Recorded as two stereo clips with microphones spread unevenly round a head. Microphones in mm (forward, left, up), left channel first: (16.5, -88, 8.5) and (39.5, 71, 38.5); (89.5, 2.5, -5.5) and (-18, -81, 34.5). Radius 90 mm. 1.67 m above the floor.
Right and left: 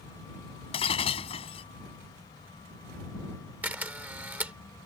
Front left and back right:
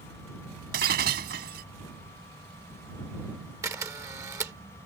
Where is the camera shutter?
155° left.